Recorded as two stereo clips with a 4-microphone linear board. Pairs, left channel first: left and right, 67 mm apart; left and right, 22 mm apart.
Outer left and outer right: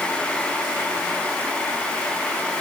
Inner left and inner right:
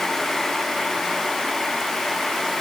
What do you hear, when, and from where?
Only background noise.